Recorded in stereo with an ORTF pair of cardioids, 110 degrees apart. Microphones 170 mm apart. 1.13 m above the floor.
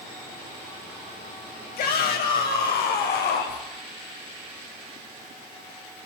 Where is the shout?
60° left, 6.5 m; by 3.6 s 70° left, 4 m.